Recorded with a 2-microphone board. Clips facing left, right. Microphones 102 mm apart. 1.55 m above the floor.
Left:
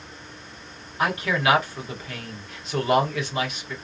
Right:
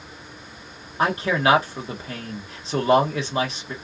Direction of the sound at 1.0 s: 35° right (ahead or behind).